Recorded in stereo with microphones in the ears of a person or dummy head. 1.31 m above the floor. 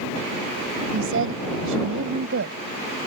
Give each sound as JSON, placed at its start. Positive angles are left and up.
{"t": 0.9, "sound": "a woman speaking", "side_deg": -80}